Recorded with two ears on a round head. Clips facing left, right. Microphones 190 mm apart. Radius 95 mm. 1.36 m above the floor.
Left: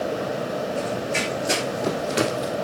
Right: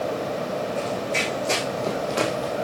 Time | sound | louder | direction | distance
0.8 | running footsteps | even | 10° left (ahead or behind) | 4.5 m